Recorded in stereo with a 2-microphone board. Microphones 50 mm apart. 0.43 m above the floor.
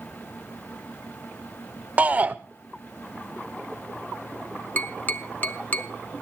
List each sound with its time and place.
2.0 s a shout: 30° right (ahead or behind), 0.9 m
4.8 s tapping: 35° left (ahead or behind), 0.9 m